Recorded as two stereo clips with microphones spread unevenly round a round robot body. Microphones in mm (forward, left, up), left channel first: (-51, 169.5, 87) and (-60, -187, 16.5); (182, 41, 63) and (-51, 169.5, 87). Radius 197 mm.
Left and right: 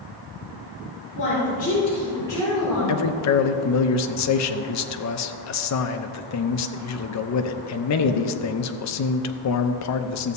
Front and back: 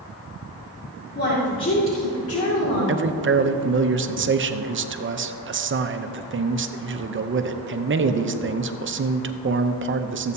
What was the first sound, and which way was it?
A woman speaking, 25° left.